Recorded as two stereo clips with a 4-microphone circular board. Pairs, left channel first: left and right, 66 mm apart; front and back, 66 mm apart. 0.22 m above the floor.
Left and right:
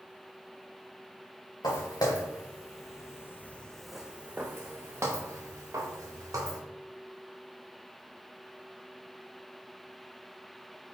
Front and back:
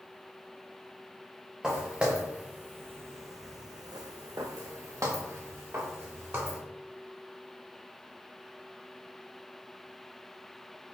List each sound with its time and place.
1.6 s footsteps: 100° left, 1.4 m; by 6.6 s 125° right, 2.0 m